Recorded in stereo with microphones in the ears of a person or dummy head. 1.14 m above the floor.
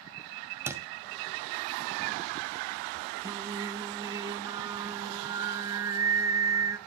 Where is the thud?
15° right (ahead or behind), 1.8 m.